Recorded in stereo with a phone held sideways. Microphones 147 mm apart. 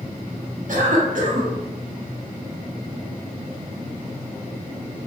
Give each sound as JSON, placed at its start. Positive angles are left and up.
{"t": 0.7, "sound": "a cough", "side_deg": -65, "distance_m": 0.9}